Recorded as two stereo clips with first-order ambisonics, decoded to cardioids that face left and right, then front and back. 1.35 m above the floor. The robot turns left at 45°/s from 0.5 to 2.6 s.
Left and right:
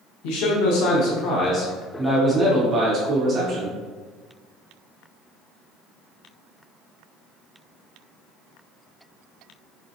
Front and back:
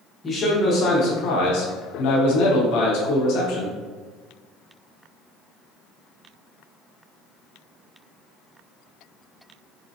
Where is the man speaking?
70° left, 0.7 m; by 3.8 s 25° right, 0.7 m.